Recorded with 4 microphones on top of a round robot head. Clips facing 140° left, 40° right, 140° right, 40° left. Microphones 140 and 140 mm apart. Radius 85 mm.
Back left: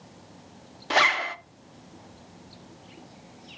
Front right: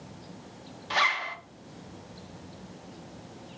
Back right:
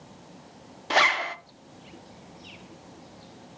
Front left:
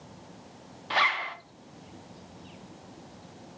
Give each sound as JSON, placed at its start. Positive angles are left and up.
{"t": 0.9, "sound": "a zipper", "azimuth_deg": 175, "distance_m": 0.5}